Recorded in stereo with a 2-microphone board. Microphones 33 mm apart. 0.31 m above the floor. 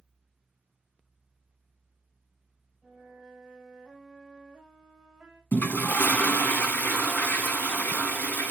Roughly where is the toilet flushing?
Left.